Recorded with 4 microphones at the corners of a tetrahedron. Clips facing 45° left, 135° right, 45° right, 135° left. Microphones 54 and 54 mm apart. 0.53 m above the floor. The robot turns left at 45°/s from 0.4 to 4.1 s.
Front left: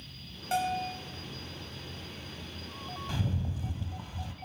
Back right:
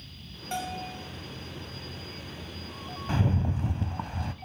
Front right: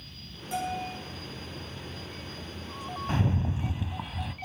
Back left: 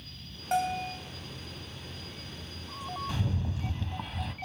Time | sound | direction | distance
0.5 | a bell | 120° left | 3 m
3.1 | a rattle | 90° right | 0.6 m